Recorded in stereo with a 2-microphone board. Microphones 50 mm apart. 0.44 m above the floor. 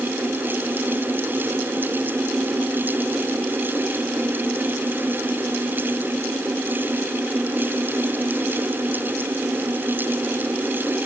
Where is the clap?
I don't hear a clap.